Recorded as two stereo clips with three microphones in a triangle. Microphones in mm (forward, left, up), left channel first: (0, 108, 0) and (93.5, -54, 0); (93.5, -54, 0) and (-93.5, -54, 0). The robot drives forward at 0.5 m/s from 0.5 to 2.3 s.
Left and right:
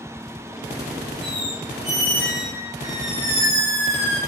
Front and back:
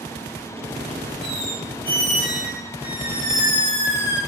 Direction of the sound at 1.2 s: 135° right.